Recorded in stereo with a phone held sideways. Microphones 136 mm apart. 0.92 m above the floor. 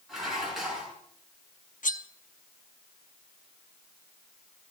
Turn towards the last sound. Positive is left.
turn(degrees=70)  # may be behind; listen again after turning